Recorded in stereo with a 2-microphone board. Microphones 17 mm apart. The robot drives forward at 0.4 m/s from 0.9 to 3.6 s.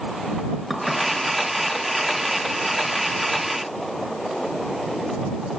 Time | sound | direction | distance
0.7 | dishes clattering | 10° right (ahead or behind) | 3 m